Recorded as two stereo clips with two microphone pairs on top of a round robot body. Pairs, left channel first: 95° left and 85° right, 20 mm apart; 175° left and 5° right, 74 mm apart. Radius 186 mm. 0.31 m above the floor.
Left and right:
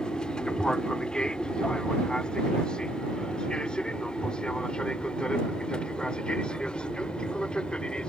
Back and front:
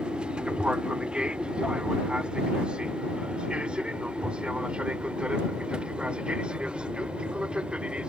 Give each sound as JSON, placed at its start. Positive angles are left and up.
{"t": 0.0, "sound": "an aircraft", "azimuth_deg": 60}